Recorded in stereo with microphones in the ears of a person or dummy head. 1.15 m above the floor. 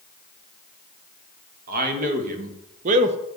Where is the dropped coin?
No dropped coin in this recording.